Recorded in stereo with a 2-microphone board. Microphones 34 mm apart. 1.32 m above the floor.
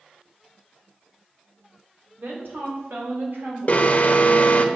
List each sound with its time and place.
2.2 s a woman speaking: 85° right, 4 m; by 4.7 s 80° right, 7 m
3.7 s an alarm: 45° left (ahead or behind), 1.1 m